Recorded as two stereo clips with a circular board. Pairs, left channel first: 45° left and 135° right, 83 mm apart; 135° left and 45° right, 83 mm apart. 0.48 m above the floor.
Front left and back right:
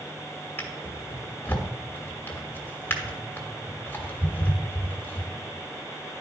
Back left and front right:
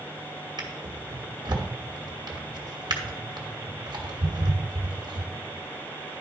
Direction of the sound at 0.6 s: 20° right.